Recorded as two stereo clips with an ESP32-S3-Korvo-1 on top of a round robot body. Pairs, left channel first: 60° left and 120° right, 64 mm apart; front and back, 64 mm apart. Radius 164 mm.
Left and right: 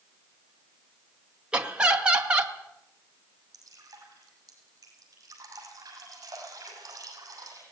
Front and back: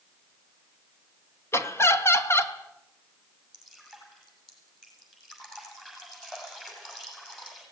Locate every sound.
1.5 s laughter: 45° right, 2.5 m
3.5 s dripping: 80° right, 6.5 m